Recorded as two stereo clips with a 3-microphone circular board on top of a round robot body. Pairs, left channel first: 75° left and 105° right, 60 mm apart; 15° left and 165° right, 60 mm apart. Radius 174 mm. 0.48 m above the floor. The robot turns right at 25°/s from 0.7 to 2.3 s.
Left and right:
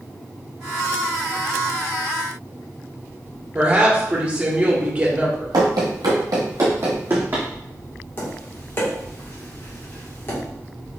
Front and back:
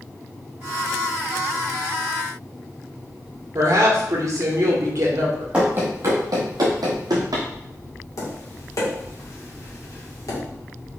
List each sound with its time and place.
3.5 s a woman speaking: 170° right, 1.9 m
5.5 s running footsteps: 90° right, 0.8 m; by 7.5 s 170° right, 1.4 m
8.2 s tapping: 30° left, 2 m